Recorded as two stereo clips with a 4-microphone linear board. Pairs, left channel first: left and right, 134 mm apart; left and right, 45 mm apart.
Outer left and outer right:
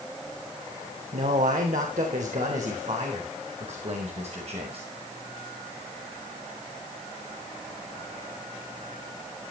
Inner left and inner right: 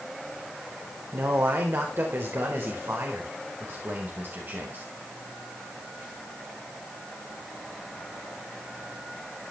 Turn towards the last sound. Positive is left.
turn(degrees=-50)  # may be behind; listen again after turning